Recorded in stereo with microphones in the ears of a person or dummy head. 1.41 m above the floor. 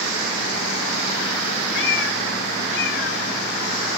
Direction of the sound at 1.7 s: 80° left.